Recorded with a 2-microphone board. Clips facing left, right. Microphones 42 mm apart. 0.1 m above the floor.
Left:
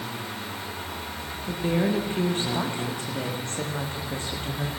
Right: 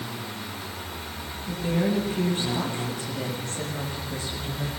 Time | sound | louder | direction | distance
1.5 | a woman speaking | left 1 dB | 35° left (ahead or behind) | 7 m